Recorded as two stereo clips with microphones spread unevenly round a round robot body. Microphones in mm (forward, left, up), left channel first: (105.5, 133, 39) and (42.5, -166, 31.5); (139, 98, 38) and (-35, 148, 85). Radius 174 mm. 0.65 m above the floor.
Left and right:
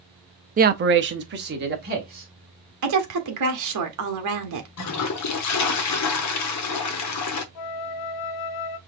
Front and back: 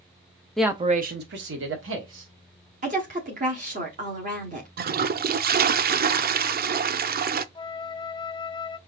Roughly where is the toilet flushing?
Behind left.